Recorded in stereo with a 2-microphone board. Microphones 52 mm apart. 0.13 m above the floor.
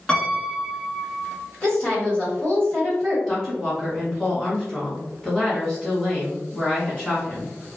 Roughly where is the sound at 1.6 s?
Left.